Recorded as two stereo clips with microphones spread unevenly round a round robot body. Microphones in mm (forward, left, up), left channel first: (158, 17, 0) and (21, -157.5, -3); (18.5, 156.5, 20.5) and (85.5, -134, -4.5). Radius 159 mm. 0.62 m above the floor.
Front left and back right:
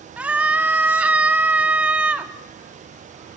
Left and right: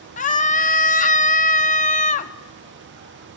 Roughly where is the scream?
Behind left.